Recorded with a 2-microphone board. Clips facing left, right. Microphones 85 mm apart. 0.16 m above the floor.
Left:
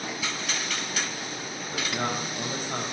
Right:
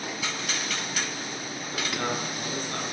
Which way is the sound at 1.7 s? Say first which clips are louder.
Even; 15° left (ahead or behind).